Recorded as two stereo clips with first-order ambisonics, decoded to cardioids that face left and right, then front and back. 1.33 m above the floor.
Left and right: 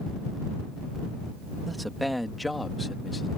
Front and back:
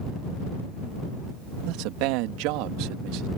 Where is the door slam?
I don't hear a door slam.